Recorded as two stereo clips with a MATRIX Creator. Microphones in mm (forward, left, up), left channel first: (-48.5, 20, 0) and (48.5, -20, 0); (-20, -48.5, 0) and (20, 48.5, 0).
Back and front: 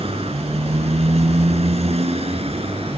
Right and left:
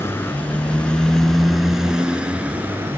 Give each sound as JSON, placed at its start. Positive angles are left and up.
{"t": 0.0, "sound": "a motorcycle", "azimuth_deg": -45}